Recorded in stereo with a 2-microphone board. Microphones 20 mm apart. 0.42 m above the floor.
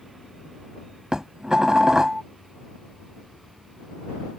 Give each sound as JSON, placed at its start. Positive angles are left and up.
{"t": 1.1, "sound": "dishes clattering", "side_deg": -30}